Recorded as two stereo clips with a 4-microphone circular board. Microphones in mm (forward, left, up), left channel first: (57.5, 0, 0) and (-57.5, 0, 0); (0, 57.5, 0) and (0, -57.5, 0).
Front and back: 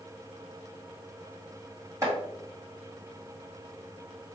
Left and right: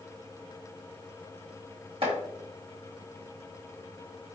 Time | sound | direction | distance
2.0 | chopping | 120° right | 2.0 m